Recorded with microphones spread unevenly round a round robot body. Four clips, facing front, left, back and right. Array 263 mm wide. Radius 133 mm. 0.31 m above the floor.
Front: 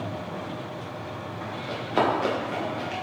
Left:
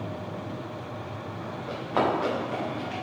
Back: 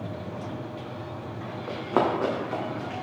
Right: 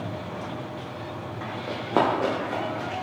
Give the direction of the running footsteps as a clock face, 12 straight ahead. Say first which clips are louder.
Right 2 dB, even; 4 o'clock.